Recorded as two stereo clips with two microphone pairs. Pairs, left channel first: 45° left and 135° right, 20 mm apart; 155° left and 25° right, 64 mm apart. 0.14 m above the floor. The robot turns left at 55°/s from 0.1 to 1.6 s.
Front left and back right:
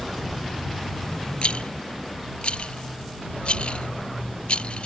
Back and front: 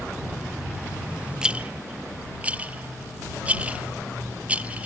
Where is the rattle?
50° left; by 4.9 s 40° left.